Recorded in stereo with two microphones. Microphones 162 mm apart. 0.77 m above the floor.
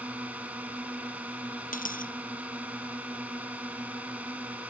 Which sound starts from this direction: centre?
A drone, at 0.0 s.